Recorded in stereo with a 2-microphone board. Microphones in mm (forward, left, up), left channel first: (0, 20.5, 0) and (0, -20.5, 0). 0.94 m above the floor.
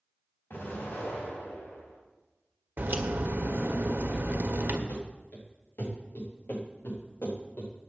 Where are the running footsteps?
65° left (ahead or behind), 7 m; by 7.7 s 50° left (ahead or behind), 6.5 m.